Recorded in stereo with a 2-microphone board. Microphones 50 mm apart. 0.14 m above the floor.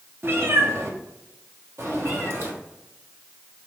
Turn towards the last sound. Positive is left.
turn(degrees=-60)  # may be behind; listen again after turning